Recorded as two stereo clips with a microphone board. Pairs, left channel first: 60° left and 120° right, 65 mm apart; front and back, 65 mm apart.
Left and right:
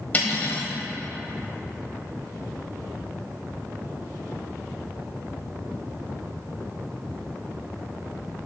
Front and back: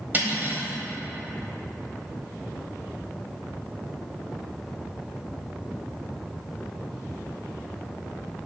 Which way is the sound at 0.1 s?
120° left.